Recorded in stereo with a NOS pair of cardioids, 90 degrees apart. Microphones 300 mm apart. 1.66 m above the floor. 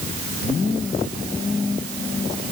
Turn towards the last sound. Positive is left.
No sound to turn to.